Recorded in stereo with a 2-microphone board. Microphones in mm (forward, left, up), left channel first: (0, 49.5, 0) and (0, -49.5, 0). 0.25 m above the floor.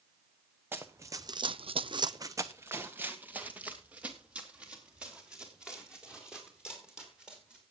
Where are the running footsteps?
20° right (ahead or behind), 1.3 m; by 7.6 s 5° right (ahead or behind), 7.5 m.